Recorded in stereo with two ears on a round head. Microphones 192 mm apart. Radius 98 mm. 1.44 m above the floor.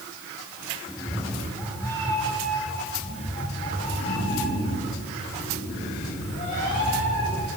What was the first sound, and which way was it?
A cat meowing, centre (ahead or behind).